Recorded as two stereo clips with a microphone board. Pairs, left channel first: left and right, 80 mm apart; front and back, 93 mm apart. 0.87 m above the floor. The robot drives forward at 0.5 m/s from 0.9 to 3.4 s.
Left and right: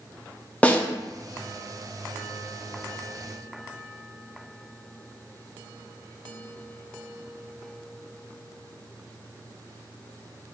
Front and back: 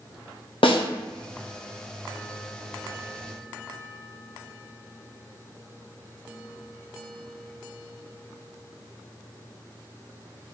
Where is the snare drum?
15° left, 0.6 m.